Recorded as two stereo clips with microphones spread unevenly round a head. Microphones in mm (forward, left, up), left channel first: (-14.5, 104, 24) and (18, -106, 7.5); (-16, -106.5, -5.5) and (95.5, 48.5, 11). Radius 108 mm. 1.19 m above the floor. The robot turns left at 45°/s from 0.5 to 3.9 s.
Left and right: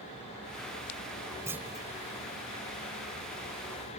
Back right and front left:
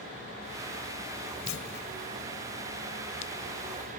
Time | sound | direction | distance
1.5 | a clunk | 160° right | ?